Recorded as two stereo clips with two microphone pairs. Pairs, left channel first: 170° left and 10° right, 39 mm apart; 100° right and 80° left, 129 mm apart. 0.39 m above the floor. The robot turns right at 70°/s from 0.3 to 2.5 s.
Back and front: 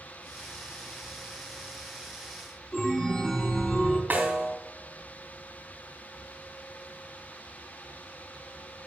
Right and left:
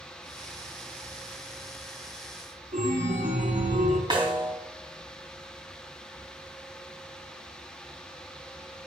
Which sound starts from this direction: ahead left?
A snare drum, at 4.1 s.